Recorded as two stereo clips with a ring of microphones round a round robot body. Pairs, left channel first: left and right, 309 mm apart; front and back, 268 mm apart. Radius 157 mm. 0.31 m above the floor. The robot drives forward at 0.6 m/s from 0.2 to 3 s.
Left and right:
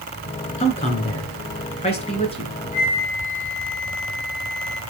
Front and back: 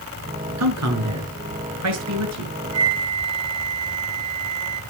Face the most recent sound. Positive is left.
turn(degrees=155)